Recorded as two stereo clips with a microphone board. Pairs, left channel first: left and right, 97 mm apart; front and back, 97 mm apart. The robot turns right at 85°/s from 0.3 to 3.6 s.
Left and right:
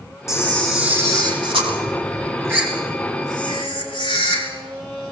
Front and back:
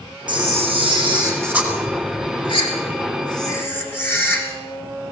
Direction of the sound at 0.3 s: 150° left.